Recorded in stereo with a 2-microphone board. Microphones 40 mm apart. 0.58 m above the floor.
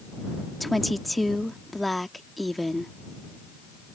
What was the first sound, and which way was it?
A woman speaking, centre (ahead or behind).